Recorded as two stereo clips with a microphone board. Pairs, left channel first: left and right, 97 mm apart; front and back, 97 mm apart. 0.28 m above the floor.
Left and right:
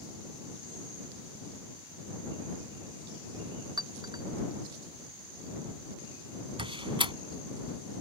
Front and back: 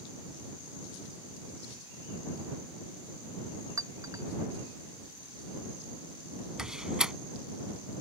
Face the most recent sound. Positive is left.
turn(degrees=-95)